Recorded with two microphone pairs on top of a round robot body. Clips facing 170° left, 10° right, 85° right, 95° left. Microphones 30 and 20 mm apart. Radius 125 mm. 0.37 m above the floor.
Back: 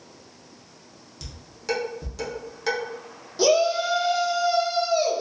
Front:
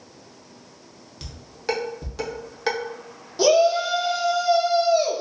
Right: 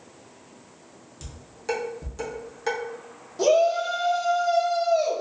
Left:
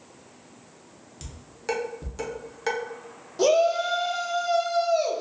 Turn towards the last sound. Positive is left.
turn(degrees=40)